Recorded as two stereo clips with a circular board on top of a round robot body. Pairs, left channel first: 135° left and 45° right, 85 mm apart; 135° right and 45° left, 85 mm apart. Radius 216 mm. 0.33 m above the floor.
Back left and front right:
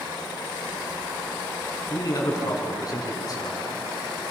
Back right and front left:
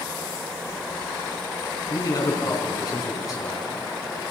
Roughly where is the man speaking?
Behind.